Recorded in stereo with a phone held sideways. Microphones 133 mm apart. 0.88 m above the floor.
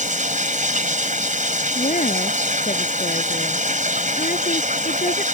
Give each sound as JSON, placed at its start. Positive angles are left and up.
{"t": 0.0, "sound": "running water", "side_deg": -75}
{"t": 1.8, "sound": "a woman speaking", "side_deg": 75}